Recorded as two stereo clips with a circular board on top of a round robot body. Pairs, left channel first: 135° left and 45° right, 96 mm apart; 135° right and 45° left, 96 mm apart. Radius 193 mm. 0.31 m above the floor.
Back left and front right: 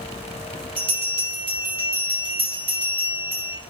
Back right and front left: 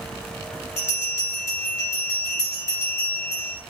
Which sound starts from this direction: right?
A bell, at 0.8 s.